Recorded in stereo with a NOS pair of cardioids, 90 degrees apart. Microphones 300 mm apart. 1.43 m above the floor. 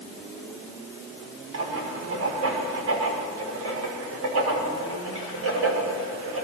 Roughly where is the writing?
Ahead right.